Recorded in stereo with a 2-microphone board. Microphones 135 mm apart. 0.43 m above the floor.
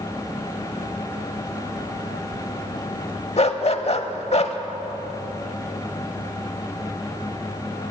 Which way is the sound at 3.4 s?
50° left (ahead or behind).